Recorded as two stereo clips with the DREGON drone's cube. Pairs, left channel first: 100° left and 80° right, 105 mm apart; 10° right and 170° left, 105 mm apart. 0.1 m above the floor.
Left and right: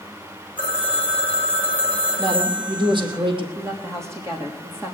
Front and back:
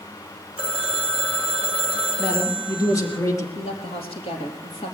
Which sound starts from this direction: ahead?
A woman speaking, at 3.5 s.